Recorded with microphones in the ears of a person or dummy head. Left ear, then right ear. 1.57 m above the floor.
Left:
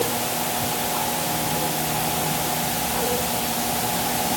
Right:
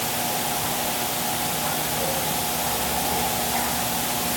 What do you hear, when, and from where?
Only background noise.